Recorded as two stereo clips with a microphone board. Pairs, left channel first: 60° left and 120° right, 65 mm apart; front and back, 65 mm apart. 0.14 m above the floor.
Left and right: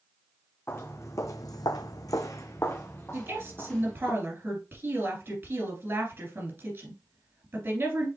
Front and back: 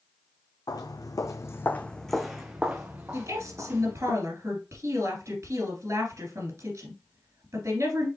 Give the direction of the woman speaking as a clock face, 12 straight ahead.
5 o'clock.